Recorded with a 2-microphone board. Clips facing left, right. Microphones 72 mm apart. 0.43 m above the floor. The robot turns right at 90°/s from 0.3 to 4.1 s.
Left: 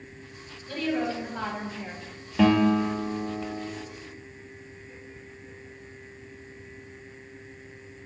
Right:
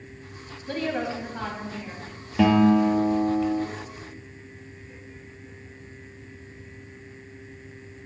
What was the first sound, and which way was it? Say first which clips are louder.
A woman speaking: even; 60° right.